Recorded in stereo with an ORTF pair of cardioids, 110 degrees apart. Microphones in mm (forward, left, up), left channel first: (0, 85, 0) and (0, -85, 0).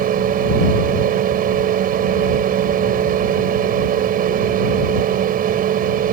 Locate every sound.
0.0 s a fan: 60° right